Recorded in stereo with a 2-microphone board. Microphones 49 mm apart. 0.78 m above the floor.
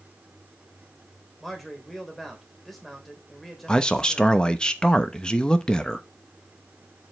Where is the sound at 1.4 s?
5° left (ahead or behind), 3 m.